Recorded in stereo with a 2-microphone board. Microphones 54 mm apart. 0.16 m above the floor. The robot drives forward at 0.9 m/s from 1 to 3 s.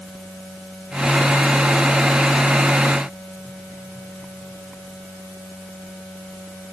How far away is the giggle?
No giggle in this recording.